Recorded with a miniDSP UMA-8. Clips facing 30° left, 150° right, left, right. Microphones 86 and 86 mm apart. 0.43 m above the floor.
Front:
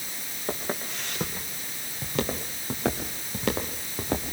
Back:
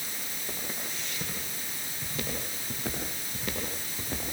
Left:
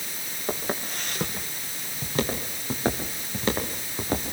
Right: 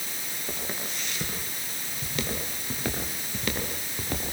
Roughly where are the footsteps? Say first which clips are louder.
Front 9 dB, left 7 dB; ahead left.